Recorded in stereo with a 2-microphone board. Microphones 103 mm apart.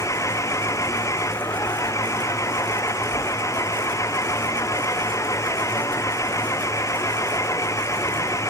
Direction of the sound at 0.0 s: 30° left (ahead or behind).